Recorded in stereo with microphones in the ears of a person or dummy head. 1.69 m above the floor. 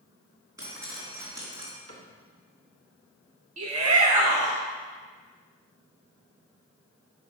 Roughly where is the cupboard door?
Right.